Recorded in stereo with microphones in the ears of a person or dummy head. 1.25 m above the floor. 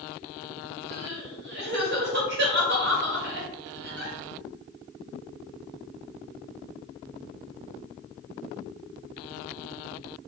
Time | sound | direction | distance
0.9 | crying | 60° right (ahead or behind) | 1.1 m